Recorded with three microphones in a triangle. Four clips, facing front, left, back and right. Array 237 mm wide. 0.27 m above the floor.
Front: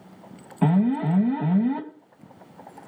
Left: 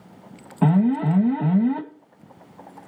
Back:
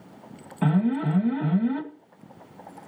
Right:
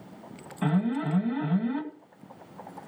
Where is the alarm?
60° left, 2.0 m.